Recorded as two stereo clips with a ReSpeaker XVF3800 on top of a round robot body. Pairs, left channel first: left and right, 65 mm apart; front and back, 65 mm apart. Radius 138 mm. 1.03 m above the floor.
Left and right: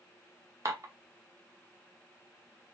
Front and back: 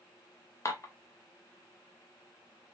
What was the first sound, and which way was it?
Dishes clattering, 50° right.